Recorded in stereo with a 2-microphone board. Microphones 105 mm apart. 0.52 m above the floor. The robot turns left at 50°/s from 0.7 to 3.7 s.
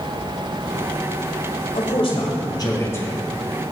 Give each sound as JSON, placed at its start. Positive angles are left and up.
{"t": 1.7, "sound": "a man speaking", "azimuth_deg": 90, "distance_m": 1.8}